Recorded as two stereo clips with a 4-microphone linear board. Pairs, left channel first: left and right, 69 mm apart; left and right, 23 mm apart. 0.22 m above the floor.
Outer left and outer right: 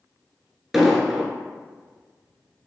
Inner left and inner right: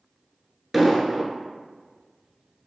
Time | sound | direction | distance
0.7 | an explosion | centre (ahead or behind) | 0.7 m